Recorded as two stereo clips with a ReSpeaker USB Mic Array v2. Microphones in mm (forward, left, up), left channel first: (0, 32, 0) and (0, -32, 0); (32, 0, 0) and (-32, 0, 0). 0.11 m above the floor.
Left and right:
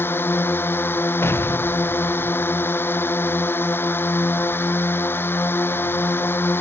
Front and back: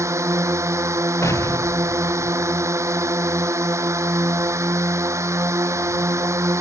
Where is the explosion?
40° left.